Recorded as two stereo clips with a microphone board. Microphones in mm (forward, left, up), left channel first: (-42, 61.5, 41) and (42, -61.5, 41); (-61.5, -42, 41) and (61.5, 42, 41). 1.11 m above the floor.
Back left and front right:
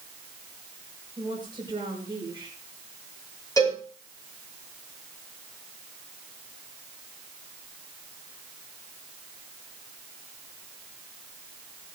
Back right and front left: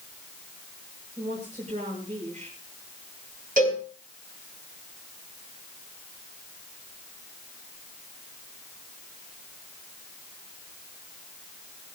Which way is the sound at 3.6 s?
60° left.